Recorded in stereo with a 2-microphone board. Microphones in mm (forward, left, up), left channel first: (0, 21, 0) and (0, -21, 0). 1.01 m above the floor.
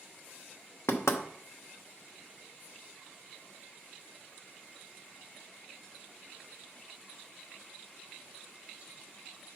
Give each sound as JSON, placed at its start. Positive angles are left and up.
{"t": 0.9, "sound": "knocking", "side_deg": 85, "distance_m": 0.8}